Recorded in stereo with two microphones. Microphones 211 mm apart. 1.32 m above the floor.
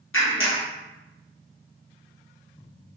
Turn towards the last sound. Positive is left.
turn(degrees=70)  # may be behind; listen again after turning